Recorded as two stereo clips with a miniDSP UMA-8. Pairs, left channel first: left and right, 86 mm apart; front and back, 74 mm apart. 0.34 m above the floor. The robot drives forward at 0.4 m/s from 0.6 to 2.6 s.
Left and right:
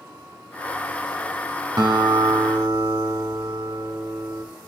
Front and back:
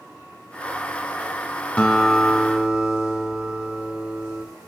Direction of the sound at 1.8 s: 70° right.